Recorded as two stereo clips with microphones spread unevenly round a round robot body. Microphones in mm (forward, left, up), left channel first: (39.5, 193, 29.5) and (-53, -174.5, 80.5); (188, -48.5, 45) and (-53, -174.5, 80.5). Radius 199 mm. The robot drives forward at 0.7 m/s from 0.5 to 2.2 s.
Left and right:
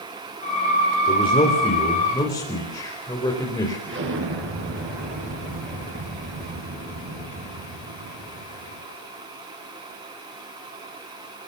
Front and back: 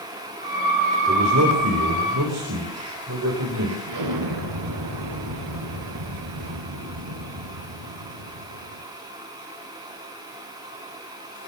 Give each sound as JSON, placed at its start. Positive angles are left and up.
{"t": 1.1, "sound": "a man speaking", "azimuth_deg": 150, "distance_m": 3.5}
{"t": 3.9, "sound": "an explosion", "azimuth_deg": -165, "distance_m": 7.5}